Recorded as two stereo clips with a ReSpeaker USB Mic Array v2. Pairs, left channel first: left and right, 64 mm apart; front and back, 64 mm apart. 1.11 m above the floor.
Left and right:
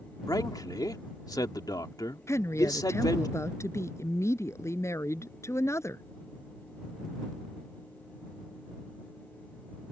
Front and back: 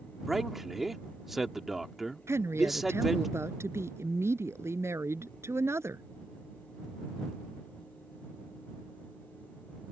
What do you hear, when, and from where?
0.3 s a man speaking: 95° left
2.3 s a woman speaking: 135° left